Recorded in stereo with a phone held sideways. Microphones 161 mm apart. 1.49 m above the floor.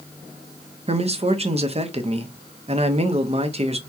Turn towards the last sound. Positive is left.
turn(degrees=-40)  # may be behind; listen again after turning